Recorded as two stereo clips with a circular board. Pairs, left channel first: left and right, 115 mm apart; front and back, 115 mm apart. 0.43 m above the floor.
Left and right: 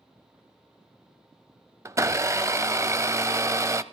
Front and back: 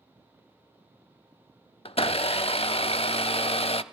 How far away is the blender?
About 0.6 m.